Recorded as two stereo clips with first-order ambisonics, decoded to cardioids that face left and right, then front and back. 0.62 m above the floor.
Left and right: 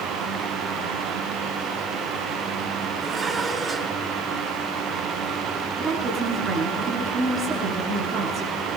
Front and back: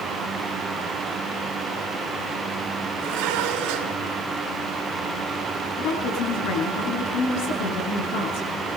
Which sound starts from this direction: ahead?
A woman speaking, at 5.8 s.